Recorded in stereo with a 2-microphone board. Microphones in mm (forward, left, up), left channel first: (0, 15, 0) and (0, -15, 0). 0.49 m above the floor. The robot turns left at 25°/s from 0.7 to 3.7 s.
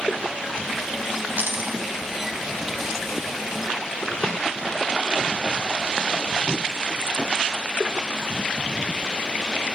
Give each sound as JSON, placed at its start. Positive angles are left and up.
{"t": 1.4, "sound": "a dropped coin", "side_deg": -75, "distance_m": 2.0}